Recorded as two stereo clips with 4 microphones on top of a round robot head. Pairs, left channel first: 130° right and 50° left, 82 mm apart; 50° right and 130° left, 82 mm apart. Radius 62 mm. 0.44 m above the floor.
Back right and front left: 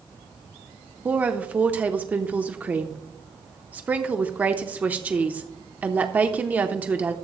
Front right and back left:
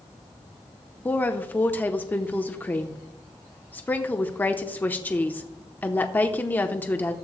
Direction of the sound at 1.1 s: Straight ahead.